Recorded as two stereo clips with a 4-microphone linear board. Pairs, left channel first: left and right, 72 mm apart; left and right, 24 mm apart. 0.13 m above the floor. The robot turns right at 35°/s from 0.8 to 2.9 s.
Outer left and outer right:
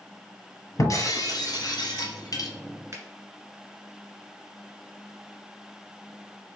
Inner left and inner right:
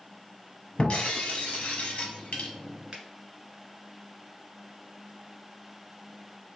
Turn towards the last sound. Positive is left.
turn(degrees=-35)  # may be behind; listen again after turning